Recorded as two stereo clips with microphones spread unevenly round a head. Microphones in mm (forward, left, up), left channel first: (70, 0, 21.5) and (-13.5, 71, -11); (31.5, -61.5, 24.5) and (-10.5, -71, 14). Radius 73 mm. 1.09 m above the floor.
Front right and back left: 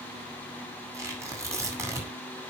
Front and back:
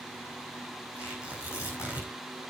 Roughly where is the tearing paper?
Left.